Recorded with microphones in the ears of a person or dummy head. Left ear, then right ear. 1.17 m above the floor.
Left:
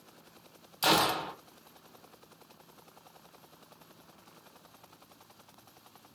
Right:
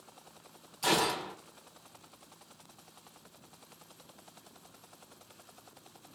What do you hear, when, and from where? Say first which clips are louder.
0.8 s a gunshot: left 3 dB; 35° left (ahead or behind), 1.2 m